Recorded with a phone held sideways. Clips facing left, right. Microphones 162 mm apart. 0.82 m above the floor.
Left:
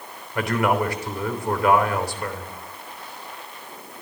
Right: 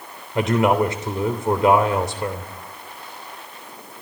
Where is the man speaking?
25° right (ahead or behind), 3.5 m.